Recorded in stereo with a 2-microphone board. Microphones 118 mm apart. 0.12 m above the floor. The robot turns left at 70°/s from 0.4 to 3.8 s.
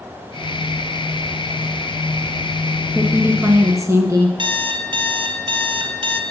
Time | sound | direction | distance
2.9 | a woman speaking | 5° right (ahead or behind) | 1.2 m
4.4 | an alarm clock | 45° right (ahead or behind) | 1.2 m